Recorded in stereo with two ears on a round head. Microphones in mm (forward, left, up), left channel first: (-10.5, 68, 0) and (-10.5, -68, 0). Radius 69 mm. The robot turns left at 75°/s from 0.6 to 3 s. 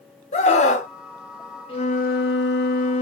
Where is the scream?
45° left (ahead or behind), 1.1 m; by 0.9 s 50° left (ahead or behind), 1.1 m.